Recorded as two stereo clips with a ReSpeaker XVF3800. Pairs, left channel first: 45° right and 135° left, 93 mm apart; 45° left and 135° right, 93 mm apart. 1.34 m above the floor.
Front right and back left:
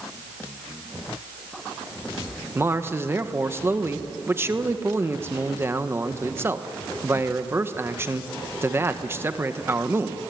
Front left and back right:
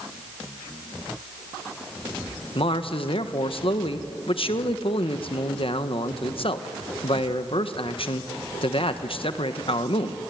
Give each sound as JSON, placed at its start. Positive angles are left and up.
{"t": 2.5, "sound": "a man speaking", "azimuth_deg": 70, "distance_m": 1.5}